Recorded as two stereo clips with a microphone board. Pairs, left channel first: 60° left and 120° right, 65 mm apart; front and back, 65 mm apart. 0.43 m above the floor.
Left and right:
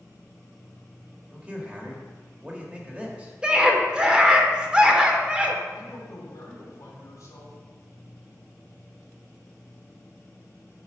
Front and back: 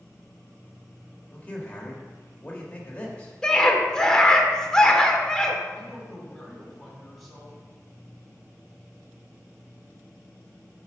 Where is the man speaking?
60° right, 1.4 m.